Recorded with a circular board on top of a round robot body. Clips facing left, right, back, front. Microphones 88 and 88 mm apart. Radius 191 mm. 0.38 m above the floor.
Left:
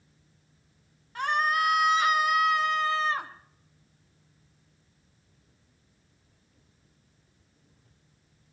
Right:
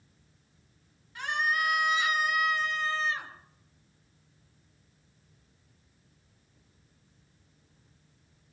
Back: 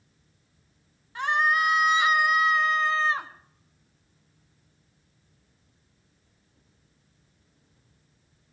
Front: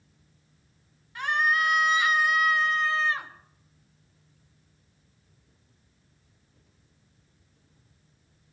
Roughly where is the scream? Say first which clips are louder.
Left 4 dB, back 2 dB; behind left.